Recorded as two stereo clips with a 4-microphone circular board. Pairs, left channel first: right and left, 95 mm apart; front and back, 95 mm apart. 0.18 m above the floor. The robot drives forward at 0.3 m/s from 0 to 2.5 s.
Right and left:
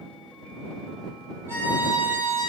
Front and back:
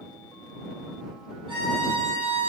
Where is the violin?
150° left, 3 m; by 2.5 s 155° left, 3.5 m.